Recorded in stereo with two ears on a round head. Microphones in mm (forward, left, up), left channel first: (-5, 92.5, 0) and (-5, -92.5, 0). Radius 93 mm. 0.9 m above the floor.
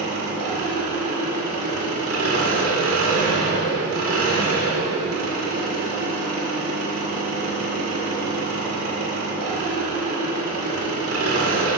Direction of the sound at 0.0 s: 75° right (ahead or behind).